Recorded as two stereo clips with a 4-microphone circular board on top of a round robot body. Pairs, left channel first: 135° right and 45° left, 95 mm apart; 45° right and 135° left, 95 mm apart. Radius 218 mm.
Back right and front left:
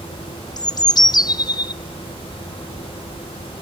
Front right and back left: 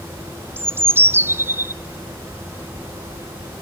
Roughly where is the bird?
Behind.